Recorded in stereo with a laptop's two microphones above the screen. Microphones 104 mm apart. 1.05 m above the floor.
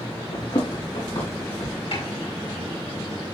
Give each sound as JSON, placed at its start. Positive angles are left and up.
{"t": 0.3, "sound": "running footsteps", "side_deg": 70, "distance_m": 4.0}
{"t": 1.9, "sound": "a snare drum", "side_deg": 85, "distance_m": 5.0}